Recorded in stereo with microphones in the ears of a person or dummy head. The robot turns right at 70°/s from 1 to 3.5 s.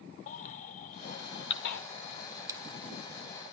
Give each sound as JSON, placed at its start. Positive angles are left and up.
{"t": 0.3, "sound": "a baby crying", "side_deg": 45, "distance_m": 1.5}
{"t": 2.5, "sound": "a dropped coin", "side_deg": -15, "distance_m": 1.1}